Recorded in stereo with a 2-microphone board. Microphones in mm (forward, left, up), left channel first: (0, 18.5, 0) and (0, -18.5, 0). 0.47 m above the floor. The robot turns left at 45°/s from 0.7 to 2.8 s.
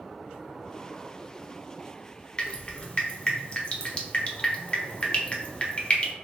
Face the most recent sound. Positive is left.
turn(degrees=30)  # may be behind; listen again after turning